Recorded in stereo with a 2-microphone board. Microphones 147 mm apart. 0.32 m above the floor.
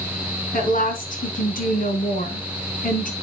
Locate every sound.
0.5 s a woman speaking: 65° left (ahead or behind), 3.5 m